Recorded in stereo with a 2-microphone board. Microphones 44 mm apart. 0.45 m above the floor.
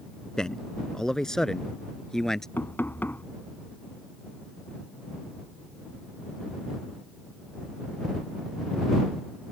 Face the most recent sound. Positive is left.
turn(degrees=55)  # may be behind; listen again after turning